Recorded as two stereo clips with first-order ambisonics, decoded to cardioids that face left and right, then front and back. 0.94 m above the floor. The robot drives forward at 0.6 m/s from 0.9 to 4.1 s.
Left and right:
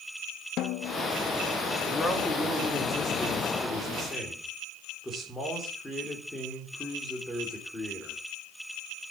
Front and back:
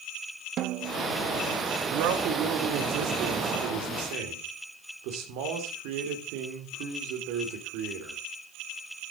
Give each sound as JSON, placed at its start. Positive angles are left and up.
{"t": 0.6, "sound": "a snare drum", "azimuth_deg": 130, "distance_m": 0.5}
{"t": 1.9, "sound": "a man speaking", "azimuth_deg": 170, "distance_m": 2.0}